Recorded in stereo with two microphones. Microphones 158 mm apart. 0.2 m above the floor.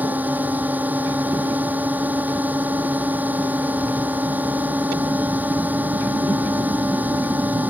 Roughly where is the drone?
Centre.